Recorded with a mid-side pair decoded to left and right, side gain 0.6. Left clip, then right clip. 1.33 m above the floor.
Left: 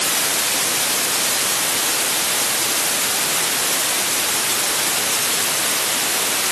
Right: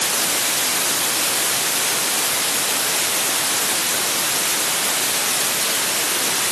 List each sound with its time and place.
Only background noise.